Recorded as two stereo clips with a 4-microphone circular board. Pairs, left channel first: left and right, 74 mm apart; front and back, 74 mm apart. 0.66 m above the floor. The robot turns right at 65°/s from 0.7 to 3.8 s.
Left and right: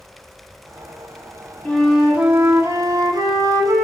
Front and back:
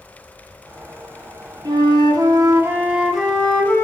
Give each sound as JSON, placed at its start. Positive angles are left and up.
{"t": 1.6, "sound": "a flute", "azimuth_deg": 170, "distance_m": 0.7}